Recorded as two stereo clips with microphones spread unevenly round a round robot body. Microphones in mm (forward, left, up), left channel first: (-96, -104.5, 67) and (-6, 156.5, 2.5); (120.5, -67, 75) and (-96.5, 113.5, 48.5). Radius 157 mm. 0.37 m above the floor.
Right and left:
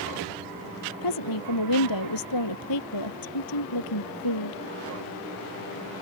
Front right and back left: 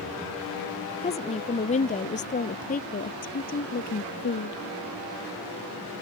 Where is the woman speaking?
110° right; by 4.6 s 100° right.